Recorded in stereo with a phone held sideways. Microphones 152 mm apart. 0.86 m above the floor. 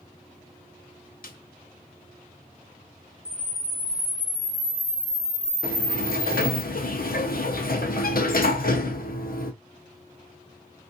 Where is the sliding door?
75° left (ahead or behind), 0.7 m.